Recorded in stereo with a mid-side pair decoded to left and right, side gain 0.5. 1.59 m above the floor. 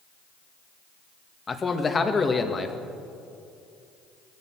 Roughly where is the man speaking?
Ahead left.